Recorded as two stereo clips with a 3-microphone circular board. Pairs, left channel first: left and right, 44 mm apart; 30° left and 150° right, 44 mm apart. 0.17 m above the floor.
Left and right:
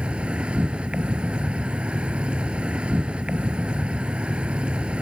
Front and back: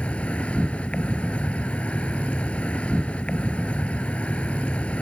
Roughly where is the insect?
Ahead right.